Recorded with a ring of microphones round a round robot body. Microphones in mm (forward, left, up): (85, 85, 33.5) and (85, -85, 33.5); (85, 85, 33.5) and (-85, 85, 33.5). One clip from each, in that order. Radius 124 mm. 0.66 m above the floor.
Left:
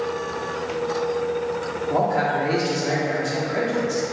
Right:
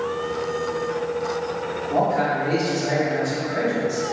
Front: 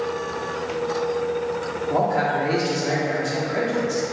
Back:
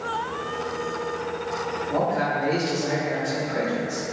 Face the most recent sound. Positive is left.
turn(degrees=45)